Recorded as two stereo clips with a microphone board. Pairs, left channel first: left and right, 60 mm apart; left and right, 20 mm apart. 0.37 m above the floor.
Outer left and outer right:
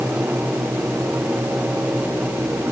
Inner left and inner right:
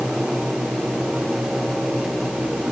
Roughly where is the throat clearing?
No throat clearing in this recording.